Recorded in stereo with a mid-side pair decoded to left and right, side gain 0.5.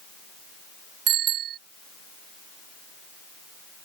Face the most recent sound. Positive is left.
turn(degrees=-65)